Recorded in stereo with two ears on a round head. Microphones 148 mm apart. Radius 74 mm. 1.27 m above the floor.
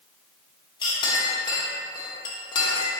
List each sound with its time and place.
0.8 s a clink: 25° left (ahead or behind), 1.0 m